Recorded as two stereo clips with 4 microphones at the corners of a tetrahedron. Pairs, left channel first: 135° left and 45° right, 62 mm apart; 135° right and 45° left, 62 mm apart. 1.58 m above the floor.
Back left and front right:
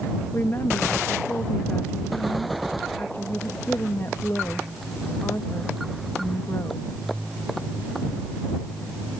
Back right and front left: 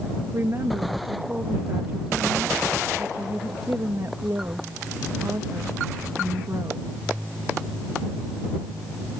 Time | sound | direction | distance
0.3 | a woman speaking | 90° left | ?